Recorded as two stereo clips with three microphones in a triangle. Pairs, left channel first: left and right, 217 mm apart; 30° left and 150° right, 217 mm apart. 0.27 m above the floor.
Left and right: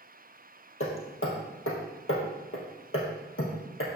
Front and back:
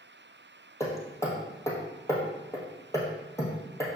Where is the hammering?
105° left, 2 m.